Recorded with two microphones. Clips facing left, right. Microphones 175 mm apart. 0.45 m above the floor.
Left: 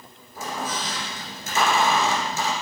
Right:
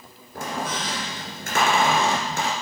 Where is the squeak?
75° right (ahead or behind), 2.5 m.